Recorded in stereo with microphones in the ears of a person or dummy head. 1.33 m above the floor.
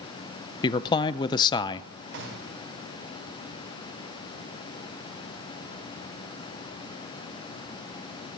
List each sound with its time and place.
0.6 s a man speaking: 25° left (ahead or behind), 0.6 m
2.1 s a gunshot: 60° right (ahead or behind), 3.5 m